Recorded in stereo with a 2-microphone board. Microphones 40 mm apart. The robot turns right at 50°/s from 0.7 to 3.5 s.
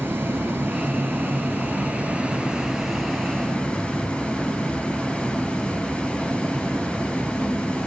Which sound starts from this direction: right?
Running water, at 0.0 s.